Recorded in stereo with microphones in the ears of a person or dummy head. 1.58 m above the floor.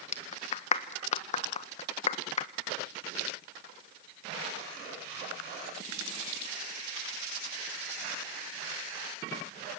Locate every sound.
0.1 s a clap: 45° left (ahead or behind), 1.2 m